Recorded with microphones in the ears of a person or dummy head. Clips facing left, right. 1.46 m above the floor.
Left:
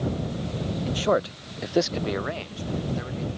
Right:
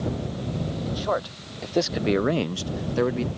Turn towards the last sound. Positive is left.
turn(degrees=-85)